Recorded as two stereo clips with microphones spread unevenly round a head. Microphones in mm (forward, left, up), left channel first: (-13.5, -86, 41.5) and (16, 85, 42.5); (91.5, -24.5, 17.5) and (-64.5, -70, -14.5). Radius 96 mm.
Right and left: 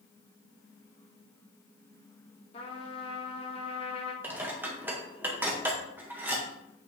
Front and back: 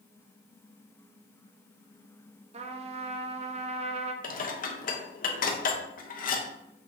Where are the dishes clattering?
Straight ahead, 1.2 m.